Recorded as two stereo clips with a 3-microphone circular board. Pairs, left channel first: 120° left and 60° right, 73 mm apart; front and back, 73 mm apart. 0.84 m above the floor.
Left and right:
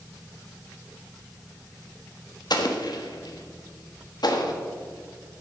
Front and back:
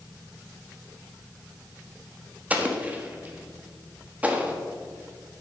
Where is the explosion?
115° left, 1.2 m.